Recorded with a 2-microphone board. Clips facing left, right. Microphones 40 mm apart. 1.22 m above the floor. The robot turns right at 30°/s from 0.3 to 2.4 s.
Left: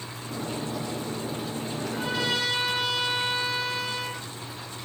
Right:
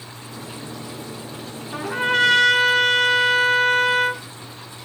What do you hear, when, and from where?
1.7 s a trumpet: 55° right (ahead or behind), 1.3 m; by 4.2 s 65° right (ahead or behind), 1.3 m